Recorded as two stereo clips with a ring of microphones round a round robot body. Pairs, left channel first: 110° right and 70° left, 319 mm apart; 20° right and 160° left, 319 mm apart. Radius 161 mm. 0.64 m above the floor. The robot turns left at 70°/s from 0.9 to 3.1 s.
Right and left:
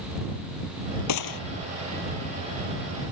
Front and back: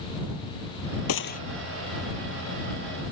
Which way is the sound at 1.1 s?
70° right.